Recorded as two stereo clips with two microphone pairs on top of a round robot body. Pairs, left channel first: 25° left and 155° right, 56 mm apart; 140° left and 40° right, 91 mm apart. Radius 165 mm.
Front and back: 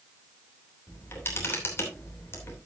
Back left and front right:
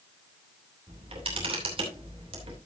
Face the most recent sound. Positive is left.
turn(degrees=-20)